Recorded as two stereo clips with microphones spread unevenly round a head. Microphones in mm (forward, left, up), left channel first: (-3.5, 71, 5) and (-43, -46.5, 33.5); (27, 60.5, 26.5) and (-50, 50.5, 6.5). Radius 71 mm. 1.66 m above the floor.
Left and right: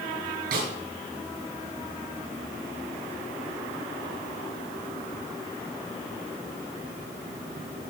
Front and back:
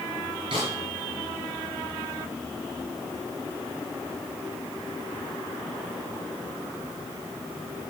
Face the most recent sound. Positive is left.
turn(degrees=-115)